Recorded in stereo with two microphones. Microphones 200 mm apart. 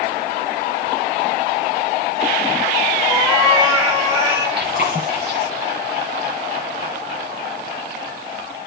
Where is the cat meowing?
20° right (ahead or behind), 6 m.